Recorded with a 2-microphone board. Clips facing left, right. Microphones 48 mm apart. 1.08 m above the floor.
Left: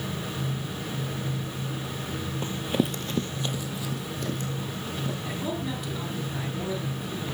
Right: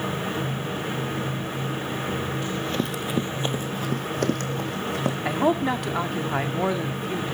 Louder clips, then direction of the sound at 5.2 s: Right 13 dB; 60° right (ahead or behind).